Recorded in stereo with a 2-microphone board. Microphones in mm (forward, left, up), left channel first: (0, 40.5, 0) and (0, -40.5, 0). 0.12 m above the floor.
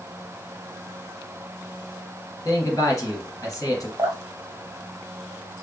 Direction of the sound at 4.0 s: 45° right (ahead or behind).